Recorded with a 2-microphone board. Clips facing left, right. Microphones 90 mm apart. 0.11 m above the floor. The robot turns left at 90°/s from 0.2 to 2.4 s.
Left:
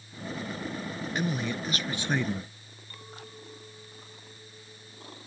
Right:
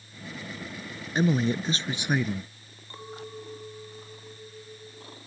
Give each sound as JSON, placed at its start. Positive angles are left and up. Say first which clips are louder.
{"t": 1.1, "sound": "a man speaking", "louder": "right 8 dB", "azimuth_deg": -70}
{"t": 2.9, "sound": "a clink", "louder": "right 7 dB", "side_deg": -30}